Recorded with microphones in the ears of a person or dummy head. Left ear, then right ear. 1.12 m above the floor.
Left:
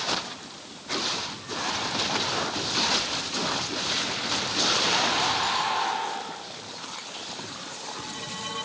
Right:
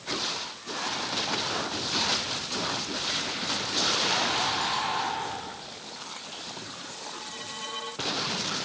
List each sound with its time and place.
Only background noise.